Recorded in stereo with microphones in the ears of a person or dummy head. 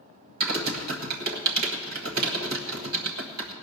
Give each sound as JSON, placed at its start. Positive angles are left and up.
{"t": 0.4, "sound": "typing on a keyboard", "side_deg": -45, "distance_m": 1.2}